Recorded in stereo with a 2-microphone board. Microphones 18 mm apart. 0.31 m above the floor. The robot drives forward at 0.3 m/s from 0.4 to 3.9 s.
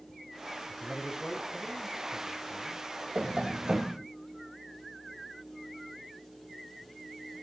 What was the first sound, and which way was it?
A man speaking, 30° left (ahead or behind).